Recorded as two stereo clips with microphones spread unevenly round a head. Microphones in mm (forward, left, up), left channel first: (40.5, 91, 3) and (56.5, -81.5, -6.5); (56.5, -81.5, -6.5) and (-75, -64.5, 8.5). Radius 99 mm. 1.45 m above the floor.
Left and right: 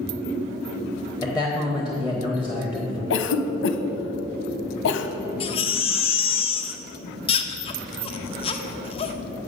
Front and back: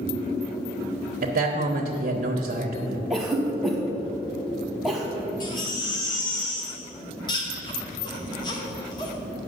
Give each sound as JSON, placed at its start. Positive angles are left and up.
{"t": 1.2, "sound": "a man speaking", "azimuth_deg": -170, "distance_m": 1.0}
{"t": 3.1, "sound": "a cough", "azimuth_deg": 85, "distance_m": 1.0}
{"t": 5.4, "sound": "a baby crying", "azimuth_deg": 55, "distance_m": 0.8}